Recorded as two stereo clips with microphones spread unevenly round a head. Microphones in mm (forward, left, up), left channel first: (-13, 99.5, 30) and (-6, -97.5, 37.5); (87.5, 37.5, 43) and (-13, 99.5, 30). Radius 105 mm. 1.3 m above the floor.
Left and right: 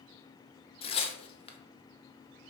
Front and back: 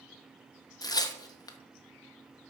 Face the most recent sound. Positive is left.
turn(degrees=30)